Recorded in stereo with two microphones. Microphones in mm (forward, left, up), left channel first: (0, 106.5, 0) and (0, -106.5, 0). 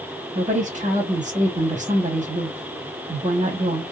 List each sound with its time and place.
0.3 s a woman speaking: 35° right (ahead or behind), 1.3 m